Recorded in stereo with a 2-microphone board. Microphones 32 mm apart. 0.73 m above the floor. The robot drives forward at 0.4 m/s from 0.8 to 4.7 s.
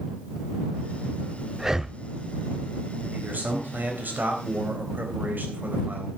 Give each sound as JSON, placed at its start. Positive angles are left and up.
{"t": 1.6, "sound": "breathing", "side_deg": -15, "distance_m": 0.5}
{"t": 3.1, "sound": "a man speaking", "side_deg": -70, "distance_m": 3.5}